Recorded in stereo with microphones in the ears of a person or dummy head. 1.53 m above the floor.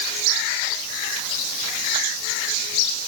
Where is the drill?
No drill in this recording.